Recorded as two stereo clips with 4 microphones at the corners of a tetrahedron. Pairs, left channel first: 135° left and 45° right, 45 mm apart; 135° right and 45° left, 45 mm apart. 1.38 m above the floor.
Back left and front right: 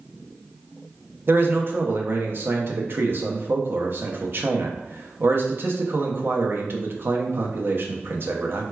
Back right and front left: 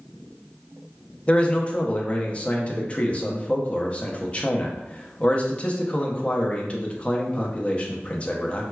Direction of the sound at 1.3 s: 80° right.